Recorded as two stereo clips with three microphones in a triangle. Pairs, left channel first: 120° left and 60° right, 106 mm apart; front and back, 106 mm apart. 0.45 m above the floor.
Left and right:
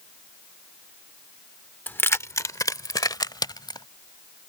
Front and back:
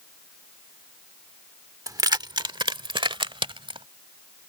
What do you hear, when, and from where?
1.9 s keys jangling: straight behind; by 3.9 s 160° left